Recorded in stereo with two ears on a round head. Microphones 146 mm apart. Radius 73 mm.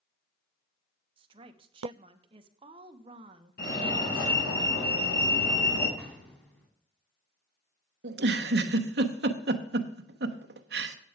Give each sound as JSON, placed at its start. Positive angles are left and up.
{"t": 1.2, "sound": "a woman speaking", "side_deg": -30, "distance_m": 0.9}
{"t": 3.6, "sound": "a fire alarm", "side_deg": 65, "distance_m": 4.5}
{"t": 6.0, "sound": "an explosion", "side_deg": 10, "distance_m": 2.0}
{"t": 8.0, "sound": "a giggle", "side_deg": -65, "distance_m": 0.9}